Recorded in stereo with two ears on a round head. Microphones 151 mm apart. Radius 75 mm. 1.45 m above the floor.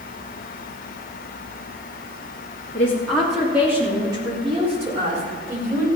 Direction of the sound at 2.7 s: 15° left (ahead or behind).